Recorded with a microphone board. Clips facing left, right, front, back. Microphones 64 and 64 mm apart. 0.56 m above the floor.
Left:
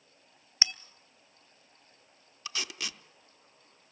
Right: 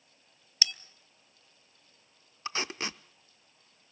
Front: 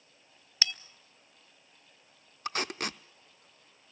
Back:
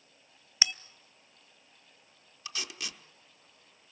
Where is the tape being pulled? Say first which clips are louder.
Right 4 dB, front 8 dB; 35° right, 0.6 m.